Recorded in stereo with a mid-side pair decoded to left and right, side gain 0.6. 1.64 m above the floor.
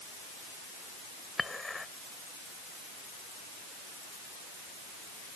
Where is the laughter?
I don't hear laughter.